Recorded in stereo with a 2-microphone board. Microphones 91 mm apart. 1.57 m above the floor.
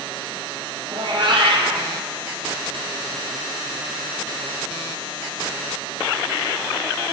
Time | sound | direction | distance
0.9 | a cat meowing | 55° right (ahead or behind) | 4.5 m